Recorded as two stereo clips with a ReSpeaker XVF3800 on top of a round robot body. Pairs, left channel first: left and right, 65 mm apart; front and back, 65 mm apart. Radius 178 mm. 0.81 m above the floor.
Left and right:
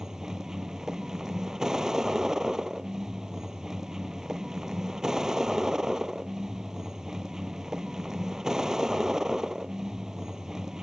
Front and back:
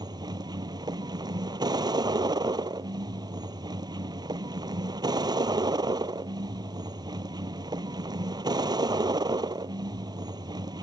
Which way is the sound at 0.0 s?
175° right.